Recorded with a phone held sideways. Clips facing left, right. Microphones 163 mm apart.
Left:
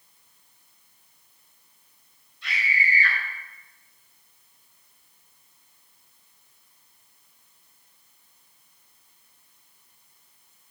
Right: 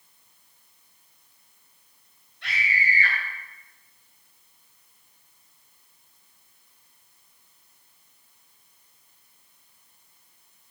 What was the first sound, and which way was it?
A scream, 65° right (ahead or behind).